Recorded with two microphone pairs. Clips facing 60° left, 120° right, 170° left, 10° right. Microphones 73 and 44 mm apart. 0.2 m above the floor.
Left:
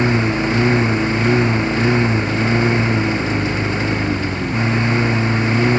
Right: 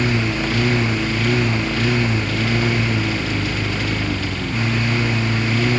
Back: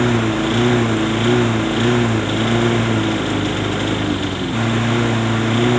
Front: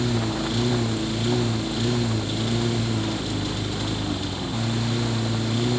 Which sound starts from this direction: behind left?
A lawn mower, at 0.0 s.